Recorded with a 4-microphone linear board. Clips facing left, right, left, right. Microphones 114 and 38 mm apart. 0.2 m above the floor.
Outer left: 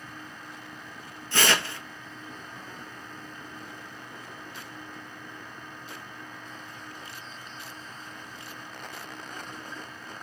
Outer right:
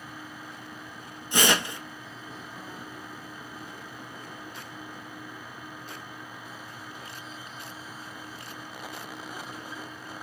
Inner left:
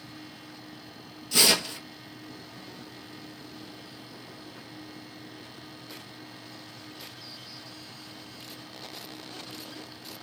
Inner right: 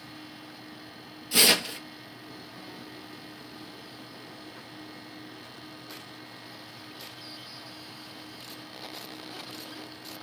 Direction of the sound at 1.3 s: 15° right (ahead or behind).